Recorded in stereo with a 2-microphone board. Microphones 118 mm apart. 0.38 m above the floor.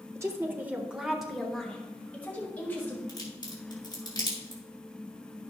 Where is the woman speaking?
25° right (ahead or behind), 1.1 m; by 3.0 s 20° left (ahead or behind), 2 m.